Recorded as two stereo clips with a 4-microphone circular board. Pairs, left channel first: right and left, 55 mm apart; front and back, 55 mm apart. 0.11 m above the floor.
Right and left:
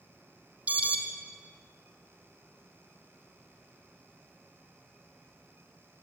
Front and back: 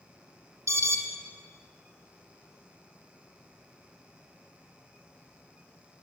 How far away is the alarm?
About 3 m.